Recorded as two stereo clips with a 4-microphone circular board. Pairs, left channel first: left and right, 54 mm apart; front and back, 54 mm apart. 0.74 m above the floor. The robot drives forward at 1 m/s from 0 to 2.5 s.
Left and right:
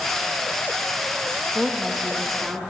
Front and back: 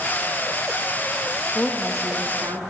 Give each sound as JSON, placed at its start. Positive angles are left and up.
{"t": 1.6, "sound": "a woman speaking", "azimuth_deg": -15, "distance_m": 0.6}